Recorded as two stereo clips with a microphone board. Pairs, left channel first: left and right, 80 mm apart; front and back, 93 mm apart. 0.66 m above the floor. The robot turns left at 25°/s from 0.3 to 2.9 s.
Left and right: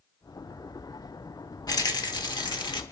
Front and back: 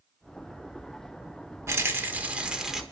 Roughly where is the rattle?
Behind left.